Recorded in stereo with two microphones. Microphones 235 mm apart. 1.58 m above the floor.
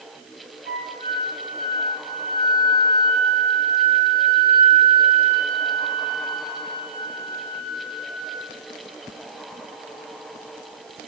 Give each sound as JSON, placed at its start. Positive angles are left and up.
{"t": 0.7, "sound": "a flute", "side_deg": -70, "distance_m": 1.5}